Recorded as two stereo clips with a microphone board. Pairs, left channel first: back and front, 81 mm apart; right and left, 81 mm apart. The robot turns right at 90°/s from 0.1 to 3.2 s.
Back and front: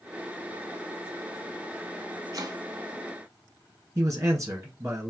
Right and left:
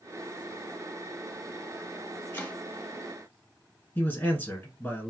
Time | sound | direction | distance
2.3 | chopping | 30° right | 0.6 m
4.0 | a man speaking | 35° right | 1.4 m